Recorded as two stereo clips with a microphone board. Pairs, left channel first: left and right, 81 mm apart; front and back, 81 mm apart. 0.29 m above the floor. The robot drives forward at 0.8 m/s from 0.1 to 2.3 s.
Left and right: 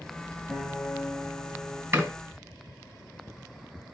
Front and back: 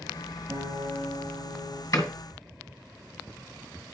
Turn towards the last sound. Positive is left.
turn(degrees=-50)